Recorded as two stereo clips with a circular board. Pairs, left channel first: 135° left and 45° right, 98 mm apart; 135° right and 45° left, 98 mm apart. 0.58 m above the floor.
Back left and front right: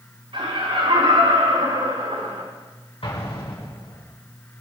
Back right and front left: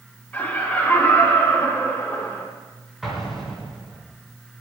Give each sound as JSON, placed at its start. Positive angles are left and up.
{"t": 0.3, "sound": "laughter", "azimuth_deg": -60, "distance_m": 6.0}
{"t": 3.0, "sound": "an explosion", "azimuth_deg": 135, "distance_m": 6.5}